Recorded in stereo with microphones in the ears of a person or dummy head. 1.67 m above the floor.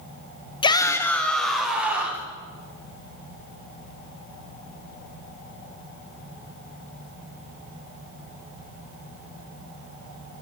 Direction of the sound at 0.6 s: 25° left (ahead or behind).